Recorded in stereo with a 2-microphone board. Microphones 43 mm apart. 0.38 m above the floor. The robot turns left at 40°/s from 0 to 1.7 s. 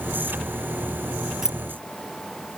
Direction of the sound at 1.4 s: 10° right (ahead or behind).